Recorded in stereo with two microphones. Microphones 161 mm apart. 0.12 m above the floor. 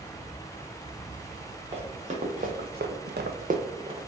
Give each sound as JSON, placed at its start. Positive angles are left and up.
{"t": 1.7, "sound": "running footsteps", "side_deg": -40, "distance_m": 1.3}